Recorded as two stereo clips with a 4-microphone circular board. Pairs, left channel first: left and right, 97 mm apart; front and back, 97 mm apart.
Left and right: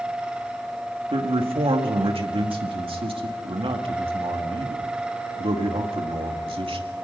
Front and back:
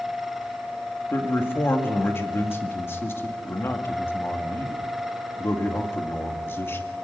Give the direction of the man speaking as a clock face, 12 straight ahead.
2 o'clock.